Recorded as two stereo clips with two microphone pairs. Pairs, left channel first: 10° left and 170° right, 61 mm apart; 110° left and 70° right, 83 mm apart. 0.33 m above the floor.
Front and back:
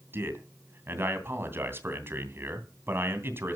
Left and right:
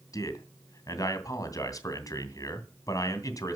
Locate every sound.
0.1 s a man speaking: 145° left, 2.5 m